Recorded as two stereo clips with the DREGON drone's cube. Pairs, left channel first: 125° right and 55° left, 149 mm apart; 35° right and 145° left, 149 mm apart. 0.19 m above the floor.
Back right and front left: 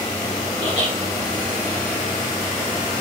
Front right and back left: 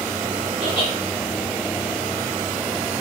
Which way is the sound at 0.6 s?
75° right.